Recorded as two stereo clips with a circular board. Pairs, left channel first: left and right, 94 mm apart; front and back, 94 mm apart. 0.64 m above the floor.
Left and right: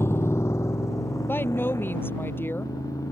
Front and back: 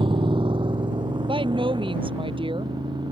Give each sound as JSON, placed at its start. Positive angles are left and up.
{"t": 0.0, "sound": "a motorcycle", "azimuth_deg": 155}
{"t": 1.3, "sound": "a woman speaking", "azimuth_deg": 155}